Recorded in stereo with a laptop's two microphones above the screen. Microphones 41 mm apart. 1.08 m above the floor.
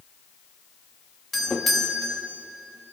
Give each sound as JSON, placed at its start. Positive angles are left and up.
{"t": 1.3, "sound": "a doorbell", "side_deg": 0, "distance_m": 3.0}